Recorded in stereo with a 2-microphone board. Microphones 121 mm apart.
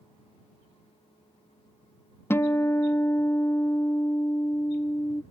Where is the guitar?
20° left (ahead or behind).